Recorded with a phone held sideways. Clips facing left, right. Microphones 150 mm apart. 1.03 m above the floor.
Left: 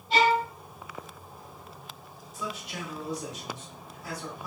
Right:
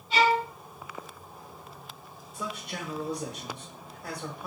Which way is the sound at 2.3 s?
60° right (ahead or behind).